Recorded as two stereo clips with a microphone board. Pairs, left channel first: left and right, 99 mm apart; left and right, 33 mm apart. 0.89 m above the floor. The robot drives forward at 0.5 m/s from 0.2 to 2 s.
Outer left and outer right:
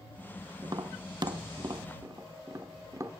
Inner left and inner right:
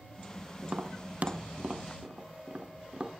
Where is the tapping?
40° right (ahead or behind), 0.6 m; by 3.1 s 35° right (ahead or behind), 0.7 m.